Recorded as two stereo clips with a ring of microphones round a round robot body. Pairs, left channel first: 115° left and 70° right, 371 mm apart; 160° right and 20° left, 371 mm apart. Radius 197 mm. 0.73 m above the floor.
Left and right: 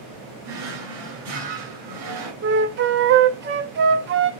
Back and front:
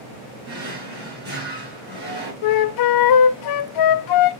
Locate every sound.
0.4 s a drawer: 40° right, 2.5 m
2.4 s a flute: 130° right, 0.6 m